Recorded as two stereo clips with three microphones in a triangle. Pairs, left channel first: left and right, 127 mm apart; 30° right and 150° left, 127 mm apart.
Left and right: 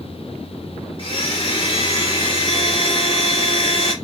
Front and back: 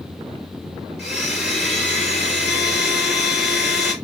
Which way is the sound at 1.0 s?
60° left.